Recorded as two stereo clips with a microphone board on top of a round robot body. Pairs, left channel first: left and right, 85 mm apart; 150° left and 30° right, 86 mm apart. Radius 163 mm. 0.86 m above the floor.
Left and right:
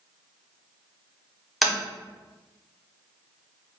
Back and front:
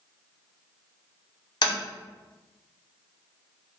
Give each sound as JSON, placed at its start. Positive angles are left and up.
{"t": 1.6, "sound": "tapping", "azimuth_deg": 180, "distance_m": 0.7}